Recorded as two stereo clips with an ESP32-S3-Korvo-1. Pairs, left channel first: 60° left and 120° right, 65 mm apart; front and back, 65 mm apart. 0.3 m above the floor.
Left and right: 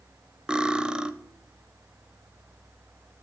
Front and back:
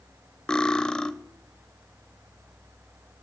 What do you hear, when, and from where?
0.5 s cutlery clinking: 60° right, 0.5 m